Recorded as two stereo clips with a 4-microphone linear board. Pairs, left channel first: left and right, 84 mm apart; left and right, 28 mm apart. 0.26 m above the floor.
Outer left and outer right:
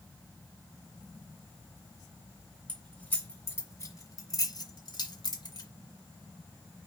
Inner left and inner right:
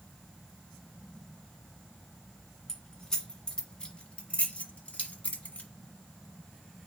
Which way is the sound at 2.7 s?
15° left (ahead or behind).